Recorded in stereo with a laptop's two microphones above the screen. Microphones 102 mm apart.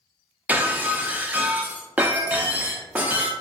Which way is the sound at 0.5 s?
15° right (ahead or behind).